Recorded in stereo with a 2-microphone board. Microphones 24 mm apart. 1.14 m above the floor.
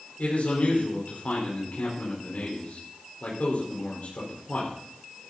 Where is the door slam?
No door slam in this recording.